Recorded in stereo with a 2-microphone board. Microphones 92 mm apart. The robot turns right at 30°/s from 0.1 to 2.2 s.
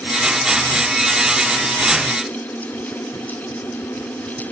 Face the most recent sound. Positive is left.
No sound to turn to.